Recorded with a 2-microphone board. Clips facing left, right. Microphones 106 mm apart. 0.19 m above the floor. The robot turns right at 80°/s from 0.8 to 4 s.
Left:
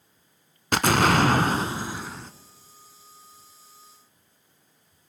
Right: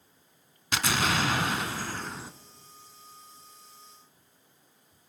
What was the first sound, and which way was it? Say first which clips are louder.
An explosion: left 8 dB; 70° left.